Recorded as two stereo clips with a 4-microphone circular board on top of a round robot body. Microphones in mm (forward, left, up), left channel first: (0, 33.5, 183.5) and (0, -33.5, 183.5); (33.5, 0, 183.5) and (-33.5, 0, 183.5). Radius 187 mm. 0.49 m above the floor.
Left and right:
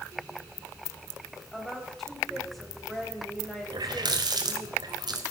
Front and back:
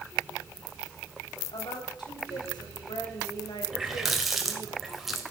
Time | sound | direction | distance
1.5 | a woman speaking | straight ahead | 3.5 m
3.7 | a running tap | 90° right | 1.9 m